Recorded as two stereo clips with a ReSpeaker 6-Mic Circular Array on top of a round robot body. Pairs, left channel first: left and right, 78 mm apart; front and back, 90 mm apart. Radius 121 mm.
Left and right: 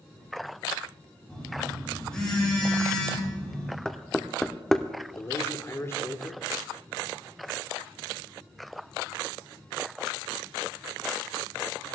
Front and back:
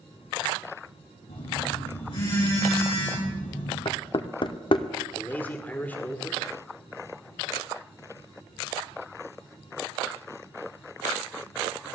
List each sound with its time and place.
1.3 s a phone buzzing: 10° left, 6.5 m
3.9 s knocking: 10° left, 0.7 m
5.2 s a man speaking: 60° left, 1.7 m